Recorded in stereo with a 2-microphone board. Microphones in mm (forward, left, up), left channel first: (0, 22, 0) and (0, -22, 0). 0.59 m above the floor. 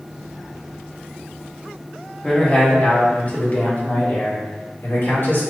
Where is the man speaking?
25° left (ahead or behind), 1.3 m; by 5.4 s 60° left (ahead or behind), 2.5 m.